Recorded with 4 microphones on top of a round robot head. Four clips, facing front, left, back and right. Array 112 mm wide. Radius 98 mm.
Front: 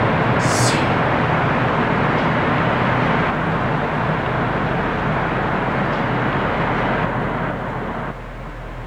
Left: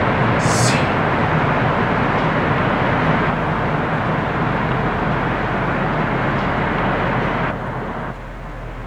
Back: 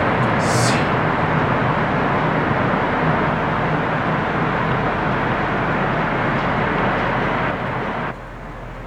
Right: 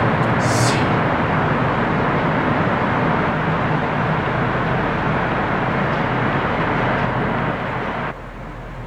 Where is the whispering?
95° left, 3.5 m.